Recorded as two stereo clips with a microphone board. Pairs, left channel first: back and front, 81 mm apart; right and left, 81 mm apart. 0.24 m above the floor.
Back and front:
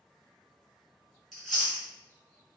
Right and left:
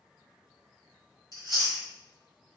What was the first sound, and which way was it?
Chewing, 90° left.